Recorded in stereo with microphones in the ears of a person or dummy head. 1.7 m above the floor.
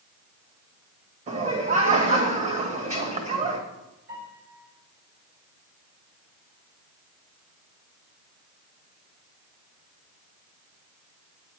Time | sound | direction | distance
1.3 | laughter | 35° right (ahead or behind) | 1.5 m
4.1 | a piano | 75° right (ahead or behind) | 4.5 m